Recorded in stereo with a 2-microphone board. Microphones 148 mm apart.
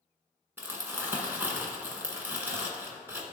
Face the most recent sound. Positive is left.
turn(degrees=-15)  # may be behind; listen again after turning